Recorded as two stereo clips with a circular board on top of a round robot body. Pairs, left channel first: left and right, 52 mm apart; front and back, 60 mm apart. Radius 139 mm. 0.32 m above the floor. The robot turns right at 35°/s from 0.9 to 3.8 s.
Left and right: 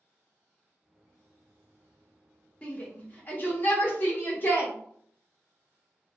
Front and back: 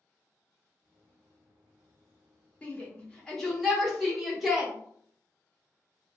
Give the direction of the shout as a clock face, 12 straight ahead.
10 o'clock.